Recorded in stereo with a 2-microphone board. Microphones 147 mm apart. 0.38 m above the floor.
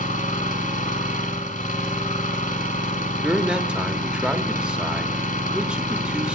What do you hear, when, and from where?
0.0 s an engine running: 70° left (ahead or behind), 2.5 m
3.2 s a man speaking: 5° right (ahead or behind), 1.1 m